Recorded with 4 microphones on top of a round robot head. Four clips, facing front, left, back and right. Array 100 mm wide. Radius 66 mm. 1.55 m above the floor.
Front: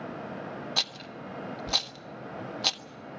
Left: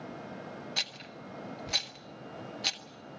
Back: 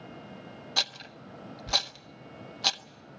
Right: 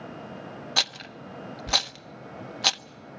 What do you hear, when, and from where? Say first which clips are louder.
0.8 s a rattle: right 9 dB, front 1 dB; 85° right, 0.5 m